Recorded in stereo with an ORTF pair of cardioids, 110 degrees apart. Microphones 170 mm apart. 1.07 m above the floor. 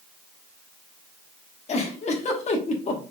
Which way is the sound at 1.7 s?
40° left.